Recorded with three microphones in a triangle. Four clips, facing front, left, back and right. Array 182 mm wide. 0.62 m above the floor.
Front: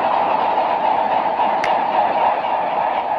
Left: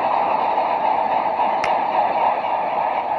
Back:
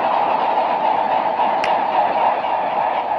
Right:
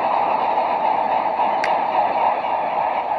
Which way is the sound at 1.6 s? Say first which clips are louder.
Even, even; 80° left.